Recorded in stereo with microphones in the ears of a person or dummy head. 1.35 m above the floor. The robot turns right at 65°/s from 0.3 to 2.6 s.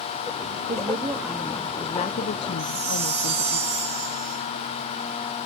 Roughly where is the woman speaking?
Ahead right.